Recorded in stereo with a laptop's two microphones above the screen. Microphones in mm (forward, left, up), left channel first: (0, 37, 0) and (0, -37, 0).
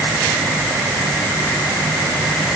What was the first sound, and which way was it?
Only background noise.